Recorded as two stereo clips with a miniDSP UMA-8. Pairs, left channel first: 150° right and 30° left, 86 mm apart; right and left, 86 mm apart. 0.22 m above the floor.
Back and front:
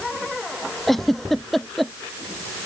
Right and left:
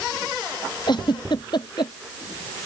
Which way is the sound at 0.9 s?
60° right.